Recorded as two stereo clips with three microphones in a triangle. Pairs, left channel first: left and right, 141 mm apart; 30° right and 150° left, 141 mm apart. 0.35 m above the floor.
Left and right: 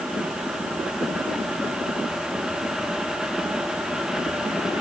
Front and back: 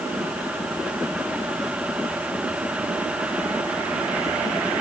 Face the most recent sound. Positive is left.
No sound to turn to.